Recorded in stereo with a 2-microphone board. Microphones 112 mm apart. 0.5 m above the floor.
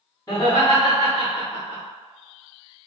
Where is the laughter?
35° left (ahead or behind), 1.3 m.